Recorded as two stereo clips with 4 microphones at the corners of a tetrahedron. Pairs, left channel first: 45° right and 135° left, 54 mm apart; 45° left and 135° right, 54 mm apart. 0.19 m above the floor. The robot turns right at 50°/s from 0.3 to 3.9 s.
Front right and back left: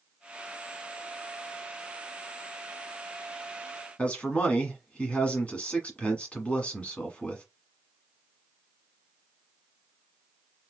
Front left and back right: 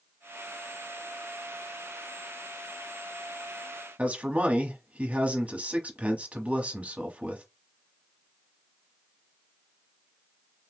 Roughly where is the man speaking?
Right.